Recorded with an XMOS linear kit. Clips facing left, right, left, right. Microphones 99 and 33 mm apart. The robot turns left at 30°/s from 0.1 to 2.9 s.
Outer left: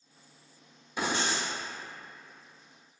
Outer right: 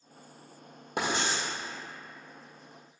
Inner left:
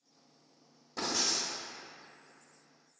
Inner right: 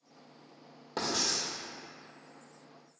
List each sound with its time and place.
1.0 s writing: 70° right (ahead or behind), 1.9 m